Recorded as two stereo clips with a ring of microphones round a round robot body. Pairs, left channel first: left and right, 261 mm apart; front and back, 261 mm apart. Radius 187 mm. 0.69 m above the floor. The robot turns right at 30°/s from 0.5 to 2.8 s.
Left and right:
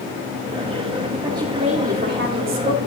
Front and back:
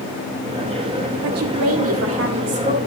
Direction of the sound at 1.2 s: 170° right.